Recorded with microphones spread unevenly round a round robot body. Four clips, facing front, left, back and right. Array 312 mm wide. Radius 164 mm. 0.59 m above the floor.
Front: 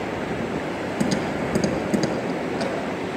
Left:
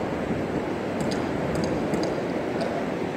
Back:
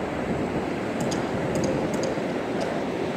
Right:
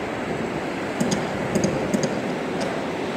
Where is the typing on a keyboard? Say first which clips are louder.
Right 4 dB, front 4 dB; 25° right, 6 m.